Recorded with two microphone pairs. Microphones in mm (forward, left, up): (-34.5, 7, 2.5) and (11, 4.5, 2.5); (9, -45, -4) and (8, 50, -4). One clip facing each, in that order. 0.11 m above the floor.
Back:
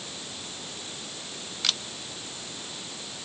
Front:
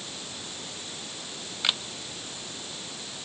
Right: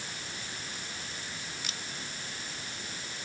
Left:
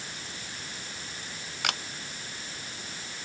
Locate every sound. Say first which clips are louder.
1.6 s a camera shutter: front 2 dB, left 10 dB; 70° left